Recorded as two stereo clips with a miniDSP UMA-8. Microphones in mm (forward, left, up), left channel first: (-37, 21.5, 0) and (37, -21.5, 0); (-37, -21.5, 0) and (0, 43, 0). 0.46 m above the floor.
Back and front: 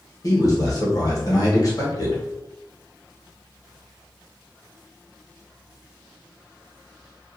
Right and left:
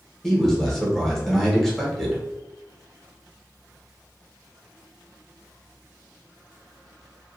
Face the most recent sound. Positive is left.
turn(degrees=155)